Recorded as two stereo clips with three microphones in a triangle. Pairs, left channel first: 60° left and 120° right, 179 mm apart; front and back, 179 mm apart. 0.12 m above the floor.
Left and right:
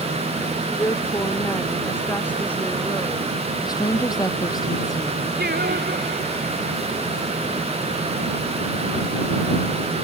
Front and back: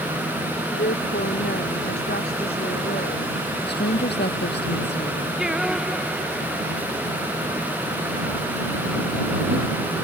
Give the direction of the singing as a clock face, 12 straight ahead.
3 o'clock.